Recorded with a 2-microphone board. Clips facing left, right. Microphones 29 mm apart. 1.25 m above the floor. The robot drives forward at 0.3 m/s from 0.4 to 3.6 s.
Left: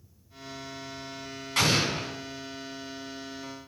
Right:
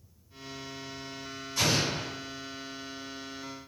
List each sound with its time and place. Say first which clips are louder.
1.6 s an explosion: left 3 dB; 75° left (ahead or behind), 2.5 m